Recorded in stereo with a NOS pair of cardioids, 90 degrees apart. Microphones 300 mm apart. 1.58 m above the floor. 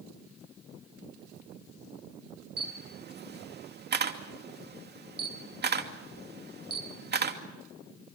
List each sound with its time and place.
2.6 s a camera shutter: 35° right, 2.5 m